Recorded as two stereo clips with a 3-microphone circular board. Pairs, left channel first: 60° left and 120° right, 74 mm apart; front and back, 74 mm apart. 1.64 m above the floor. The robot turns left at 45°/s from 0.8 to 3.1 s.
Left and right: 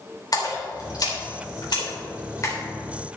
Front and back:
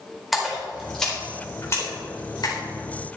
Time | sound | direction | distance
0.3 | a splash | 90° left | 4 m